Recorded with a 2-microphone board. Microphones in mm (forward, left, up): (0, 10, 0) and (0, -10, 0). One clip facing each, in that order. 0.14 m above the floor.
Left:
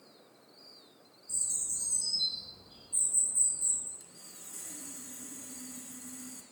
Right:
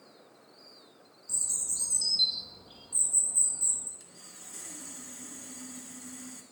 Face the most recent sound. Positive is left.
turn(degrees=-20)  # may be behind; listen again after turning